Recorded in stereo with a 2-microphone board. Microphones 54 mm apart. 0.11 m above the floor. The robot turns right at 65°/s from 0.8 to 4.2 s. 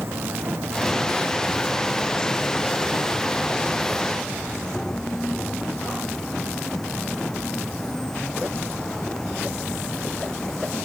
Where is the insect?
50° right; by 10.8 s 170° left.